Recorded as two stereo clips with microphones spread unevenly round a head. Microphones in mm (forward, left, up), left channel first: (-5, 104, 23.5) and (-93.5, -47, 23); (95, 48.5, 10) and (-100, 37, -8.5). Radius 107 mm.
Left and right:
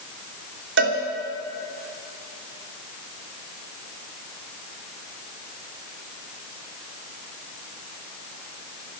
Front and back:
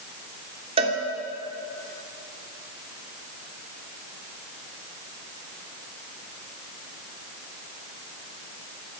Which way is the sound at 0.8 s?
110° right.